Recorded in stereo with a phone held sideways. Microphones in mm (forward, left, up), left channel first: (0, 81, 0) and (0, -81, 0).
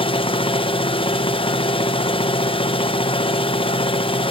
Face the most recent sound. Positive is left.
turn(degrees=35)  # may be behind; listen again after turning